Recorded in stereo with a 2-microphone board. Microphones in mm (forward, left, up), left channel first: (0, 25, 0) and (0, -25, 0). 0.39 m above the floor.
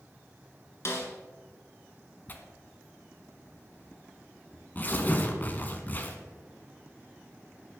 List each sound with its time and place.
0.8 s a snare drum: 50° left (ahead or behind), 2.5 m
2.3 s tearing paper: 35° left (ahead or behind), 1.5 m